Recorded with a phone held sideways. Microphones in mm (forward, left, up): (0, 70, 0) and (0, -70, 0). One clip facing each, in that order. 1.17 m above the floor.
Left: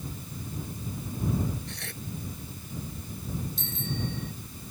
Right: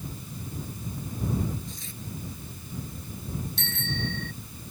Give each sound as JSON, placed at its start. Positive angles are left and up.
{"t": 1.7, "sound": "tearing paper", "side_deg": 70}
{"t": 3.6, "sound": "a bicycle bell", "side_deg": -75}